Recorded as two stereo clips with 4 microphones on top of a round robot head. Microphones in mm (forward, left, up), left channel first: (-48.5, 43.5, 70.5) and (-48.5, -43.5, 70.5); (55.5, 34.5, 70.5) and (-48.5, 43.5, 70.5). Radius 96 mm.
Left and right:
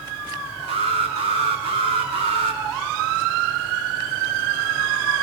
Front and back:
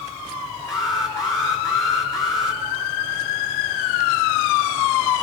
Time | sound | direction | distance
0.7 | an alarm | 70° right | 5.5 m